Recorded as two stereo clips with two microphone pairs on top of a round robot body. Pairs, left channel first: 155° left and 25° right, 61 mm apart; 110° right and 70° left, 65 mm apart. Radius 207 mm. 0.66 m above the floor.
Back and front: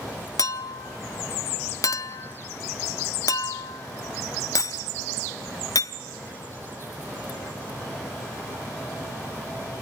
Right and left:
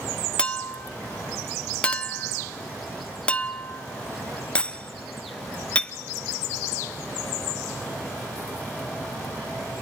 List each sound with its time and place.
0.4 s a clink: 175° left, 0.8 m